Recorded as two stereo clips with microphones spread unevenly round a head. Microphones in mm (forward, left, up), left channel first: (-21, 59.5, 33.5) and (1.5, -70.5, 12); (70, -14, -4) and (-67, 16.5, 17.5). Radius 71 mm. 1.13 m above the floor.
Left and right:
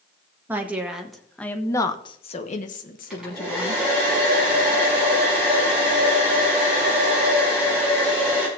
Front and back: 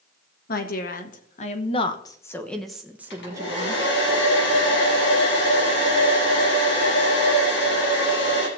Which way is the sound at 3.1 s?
5° left.